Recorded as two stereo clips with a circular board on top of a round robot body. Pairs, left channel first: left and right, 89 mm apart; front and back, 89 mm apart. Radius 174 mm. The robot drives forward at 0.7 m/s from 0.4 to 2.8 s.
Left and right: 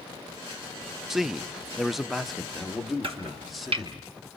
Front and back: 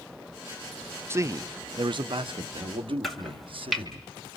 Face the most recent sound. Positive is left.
turn(degrees=-90)